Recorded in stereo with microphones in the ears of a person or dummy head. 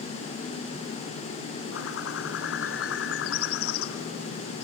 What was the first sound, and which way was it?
A bird, 85° left.